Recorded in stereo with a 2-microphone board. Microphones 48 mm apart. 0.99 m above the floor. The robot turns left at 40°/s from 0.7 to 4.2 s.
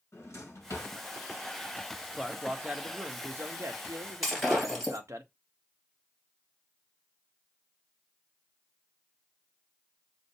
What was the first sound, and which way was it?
A drawer, 80° left.